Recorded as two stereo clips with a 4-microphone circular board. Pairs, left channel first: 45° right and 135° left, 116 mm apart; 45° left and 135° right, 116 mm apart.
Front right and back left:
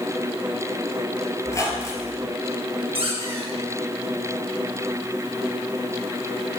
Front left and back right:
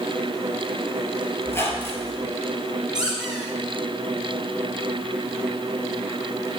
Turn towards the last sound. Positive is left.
turn(degrees=145)